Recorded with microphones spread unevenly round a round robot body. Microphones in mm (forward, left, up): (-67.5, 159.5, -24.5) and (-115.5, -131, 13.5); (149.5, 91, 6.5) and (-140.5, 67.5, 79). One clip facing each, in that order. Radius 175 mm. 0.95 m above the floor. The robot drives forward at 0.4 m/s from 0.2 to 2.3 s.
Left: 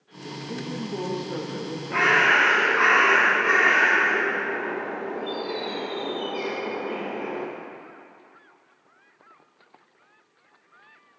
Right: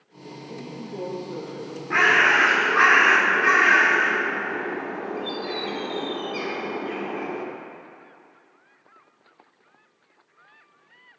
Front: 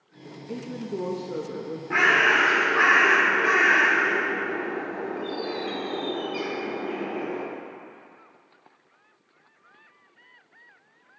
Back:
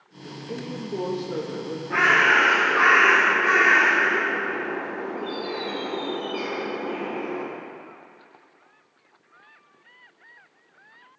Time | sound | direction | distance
0.5 | a woman speaking | 70° left | 1.5 m
1.9 | a bird | 55° right | 1.6 m